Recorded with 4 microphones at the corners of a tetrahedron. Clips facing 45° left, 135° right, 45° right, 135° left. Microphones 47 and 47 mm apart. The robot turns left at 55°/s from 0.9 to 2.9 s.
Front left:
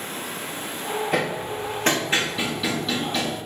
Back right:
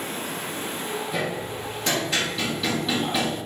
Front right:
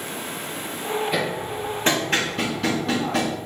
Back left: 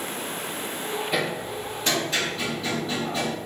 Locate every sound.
1.1 s hammering: 45° left, 1.4 m; by 3.4 s 50° right, 1.4 m